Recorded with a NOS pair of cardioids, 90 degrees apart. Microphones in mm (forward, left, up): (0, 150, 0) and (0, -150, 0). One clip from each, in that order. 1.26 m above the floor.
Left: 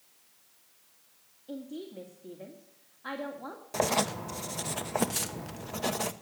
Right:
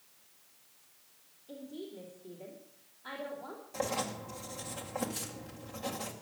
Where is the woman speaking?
65° left, 2.5 m.